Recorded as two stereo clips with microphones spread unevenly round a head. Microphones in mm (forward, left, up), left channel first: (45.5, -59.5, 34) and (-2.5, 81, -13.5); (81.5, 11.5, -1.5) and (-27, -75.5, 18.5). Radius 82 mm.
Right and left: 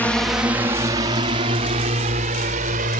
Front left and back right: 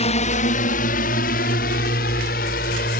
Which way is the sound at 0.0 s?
20° left.